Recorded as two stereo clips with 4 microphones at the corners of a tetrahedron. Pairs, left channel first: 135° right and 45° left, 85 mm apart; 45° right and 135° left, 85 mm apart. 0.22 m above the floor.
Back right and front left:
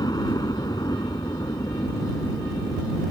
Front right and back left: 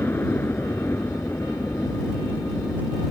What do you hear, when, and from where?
0.0 s a helicopter: 105° right; by 3.1 s 100° right